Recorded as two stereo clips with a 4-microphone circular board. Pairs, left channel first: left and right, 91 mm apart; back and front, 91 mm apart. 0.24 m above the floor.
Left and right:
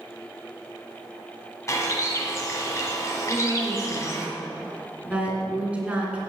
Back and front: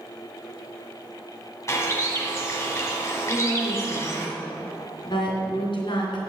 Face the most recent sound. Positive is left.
turn(degrees=-165)